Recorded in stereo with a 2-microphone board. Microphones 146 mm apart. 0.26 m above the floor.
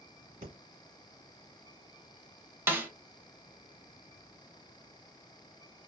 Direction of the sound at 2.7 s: 15° right (ahead or behind).